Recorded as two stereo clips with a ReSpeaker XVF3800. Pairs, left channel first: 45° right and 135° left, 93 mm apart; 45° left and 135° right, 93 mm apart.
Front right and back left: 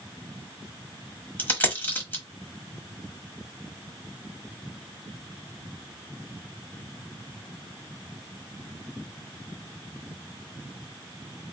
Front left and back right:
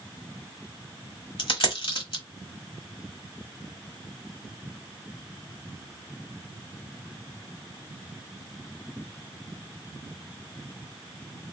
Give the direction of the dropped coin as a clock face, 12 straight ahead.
11 o'clock.